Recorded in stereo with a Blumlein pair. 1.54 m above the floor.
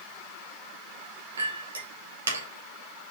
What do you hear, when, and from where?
1.4 s a clink: 70° right, 2.5 m